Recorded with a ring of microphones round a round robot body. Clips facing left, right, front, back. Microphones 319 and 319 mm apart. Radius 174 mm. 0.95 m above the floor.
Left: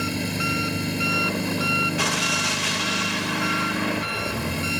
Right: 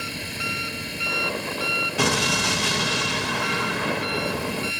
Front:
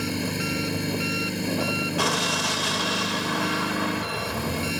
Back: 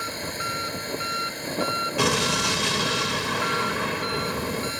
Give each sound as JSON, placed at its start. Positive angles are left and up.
{"t": 0.0, "sound": "an engine running", "azimuth_deg": 55}
{"t": 2.0, "sound": "an explosion", "azimuth_deg": -125}